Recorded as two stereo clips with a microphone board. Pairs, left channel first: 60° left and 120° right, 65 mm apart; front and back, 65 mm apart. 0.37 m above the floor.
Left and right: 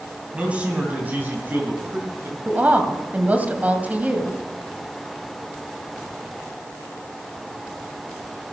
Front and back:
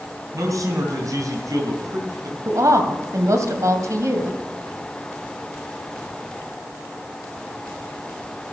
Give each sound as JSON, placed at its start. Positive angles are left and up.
{"t": 0.3, "sound": "a man speaking", "azimuth_deg": 170, "distance_m": 3.0}
{"t": 2.5, "sound": "a woman speaking", "azimuth_deg": 180, "distance_m": 2.0}